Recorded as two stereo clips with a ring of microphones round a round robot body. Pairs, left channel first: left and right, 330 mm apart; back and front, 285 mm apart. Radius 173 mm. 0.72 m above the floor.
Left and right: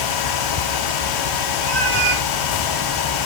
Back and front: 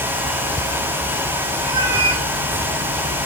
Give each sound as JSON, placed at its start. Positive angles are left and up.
{"t": 1.6, "sound": "a cat meowing", "azimuth_deg": -55, "distance_m": 3.0}